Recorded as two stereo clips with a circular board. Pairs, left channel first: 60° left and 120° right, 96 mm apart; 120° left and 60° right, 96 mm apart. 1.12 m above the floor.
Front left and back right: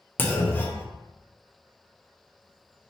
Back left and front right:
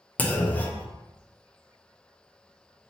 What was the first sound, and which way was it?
A clunk, 80° left.